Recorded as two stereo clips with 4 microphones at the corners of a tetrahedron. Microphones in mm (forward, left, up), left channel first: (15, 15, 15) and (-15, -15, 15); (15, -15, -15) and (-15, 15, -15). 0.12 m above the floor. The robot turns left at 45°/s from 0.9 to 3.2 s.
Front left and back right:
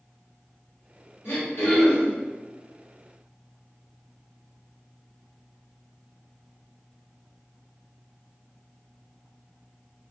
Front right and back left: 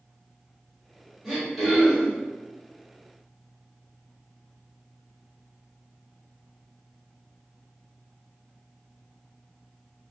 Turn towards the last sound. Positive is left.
turn(degrees=-25)